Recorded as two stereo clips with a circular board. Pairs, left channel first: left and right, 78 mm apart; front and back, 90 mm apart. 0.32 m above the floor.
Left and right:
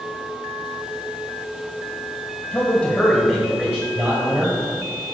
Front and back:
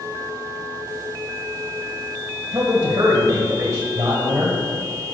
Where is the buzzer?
No buzzer in this recording.